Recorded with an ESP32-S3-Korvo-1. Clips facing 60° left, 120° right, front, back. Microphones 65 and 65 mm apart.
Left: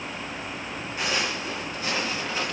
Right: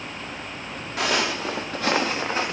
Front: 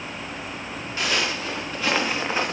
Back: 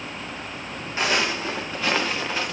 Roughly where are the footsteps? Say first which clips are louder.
Right 5 dB, back 2 dB; behind right.